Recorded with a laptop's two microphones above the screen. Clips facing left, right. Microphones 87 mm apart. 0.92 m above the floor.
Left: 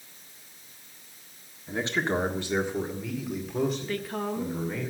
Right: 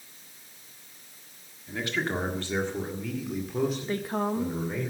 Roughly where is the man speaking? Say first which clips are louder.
Left 2 dB; left.